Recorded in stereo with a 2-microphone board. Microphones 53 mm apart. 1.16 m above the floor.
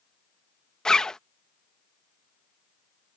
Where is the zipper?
15° left (ahead or behind).